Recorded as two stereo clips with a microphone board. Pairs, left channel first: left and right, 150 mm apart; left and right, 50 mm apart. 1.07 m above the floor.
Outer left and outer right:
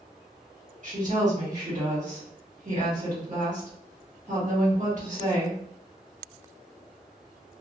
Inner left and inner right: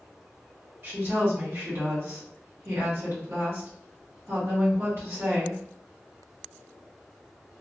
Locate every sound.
0.8 s a woman speaking: 55° right (ahead or behind), 1.5 m